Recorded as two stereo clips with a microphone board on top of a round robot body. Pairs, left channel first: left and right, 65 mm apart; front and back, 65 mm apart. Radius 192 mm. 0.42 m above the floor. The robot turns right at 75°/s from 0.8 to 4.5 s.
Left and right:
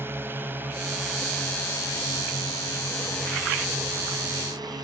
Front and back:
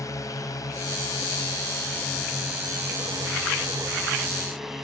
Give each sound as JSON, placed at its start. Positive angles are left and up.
{"t": 0.0, "sound": "a drone", "azimuth_deg": -35}